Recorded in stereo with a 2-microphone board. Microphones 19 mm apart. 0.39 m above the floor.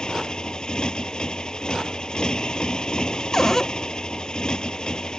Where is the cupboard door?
30° left (ahead or behind).